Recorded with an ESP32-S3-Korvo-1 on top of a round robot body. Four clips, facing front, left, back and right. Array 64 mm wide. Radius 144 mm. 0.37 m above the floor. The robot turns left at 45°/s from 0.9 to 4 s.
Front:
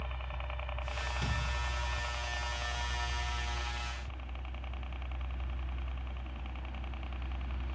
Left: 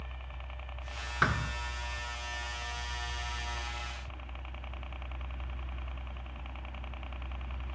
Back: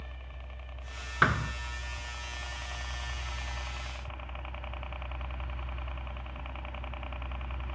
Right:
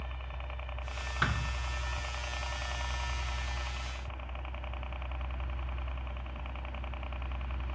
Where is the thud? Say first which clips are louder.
Left 4 dB, back 17 dB; 170° left; by 1.5 s 155° left.